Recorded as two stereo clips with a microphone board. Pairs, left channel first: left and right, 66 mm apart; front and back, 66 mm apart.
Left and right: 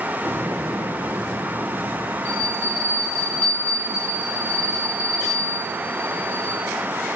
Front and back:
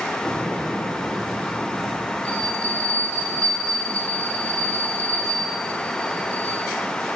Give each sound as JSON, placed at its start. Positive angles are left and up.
{"t": 0.2, "sound": "an explosion", "azimuth_deg": -90, "distance_m": 3.5}
{"t": 2.2, "sound": "a bell", "azimuth_deg": 150, "distance_m": 3.5}